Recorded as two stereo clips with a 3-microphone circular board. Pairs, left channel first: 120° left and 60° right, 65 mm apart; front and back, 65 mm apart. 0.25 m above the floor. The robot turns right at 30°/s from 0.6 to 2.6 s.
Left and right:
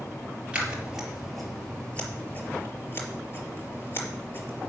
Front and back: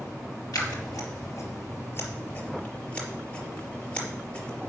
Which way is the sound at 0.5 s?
10° left.